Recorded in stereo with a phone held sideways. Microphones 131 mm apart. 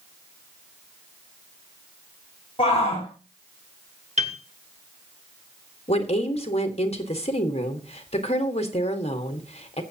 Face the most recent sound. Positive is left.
turn(degrees=50)  # may be behind; listen again after turning